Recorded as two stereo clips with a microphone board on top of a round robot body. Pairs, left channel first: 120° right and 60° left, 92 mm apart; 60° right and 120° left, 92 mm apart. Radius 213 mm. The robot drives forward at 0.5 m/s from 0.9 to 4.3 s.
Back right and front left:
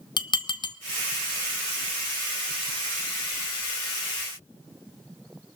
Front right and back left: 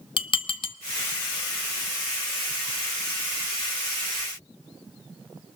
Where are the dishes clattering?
80° right, 0.6 m.